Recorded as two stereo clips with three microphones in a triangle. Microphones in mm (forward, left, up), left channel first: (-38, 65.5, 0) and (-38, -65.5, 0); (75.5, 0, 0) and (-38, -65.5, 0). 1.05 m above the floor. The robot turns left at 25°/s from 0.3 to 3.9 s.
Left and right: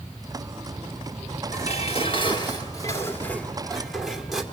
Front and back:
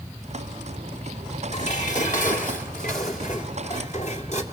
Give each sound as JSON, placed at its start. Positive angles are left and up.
{"t": 1.5, "sound": "dishes clattering", "azimuth_deg": 60, "distance_m": 2.5}